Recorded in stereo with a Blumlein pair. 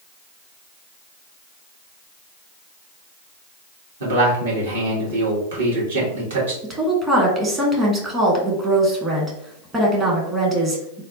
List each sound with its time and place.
4.0 s a man speaking: 65° right, 1.7 m
6.6 s a woman speaking: 20° right, 1.1 m